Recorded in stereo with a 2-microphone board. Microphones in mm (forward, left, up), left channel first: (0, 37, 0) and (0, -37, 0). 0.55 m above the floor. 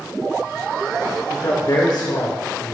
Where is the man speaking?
55° left (ahead or behind), 1.9 m; by 2.7 s 65° left (ahead or behind), 2.5 m.